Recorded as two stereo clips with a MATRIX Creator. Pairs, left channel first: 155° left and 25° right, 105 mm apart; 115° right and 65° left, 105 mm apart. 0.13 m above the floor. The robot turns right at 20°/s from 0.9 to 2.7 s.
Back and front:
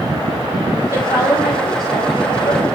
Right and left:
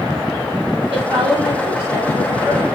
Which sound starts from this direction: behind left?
A woman speaking, at 0.9 s.